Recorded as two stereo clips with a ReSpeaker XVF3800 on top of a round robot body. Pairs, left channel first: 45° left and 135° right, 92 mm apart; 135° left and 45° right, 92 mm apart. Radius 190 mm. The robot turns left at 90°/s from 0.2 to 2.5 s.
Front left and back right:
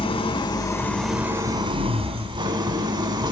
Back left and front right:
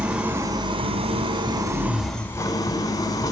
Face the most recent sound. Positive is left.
turn(degrees=-175)